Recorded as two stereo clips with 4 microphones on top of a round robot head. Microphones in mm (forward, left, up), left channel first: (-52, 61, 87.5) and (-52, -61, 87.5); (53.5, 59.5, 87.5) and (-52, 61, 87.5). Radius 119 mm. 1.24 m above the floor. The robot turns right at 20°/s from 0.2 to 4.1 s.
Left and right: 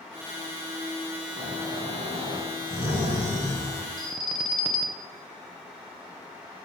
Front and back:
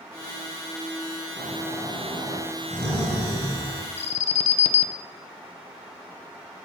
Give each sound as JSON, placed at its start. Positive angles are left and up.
{"t": 1.4, "sound": "snoring", "azimuth_deg": -140, "distance_m": 1.5}
{"t": 4.0, "sound": "an alarm", "azimuth_deg": 0, "distance_m": 0.5}